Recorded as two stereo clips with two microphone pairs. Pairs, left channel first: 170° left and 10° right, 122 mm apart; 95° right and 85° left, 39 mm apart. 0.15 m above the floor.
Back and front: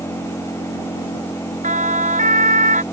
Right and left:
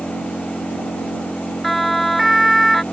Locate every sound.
0.0 s an engine running: 125° right
1.6 s a siren: 10° right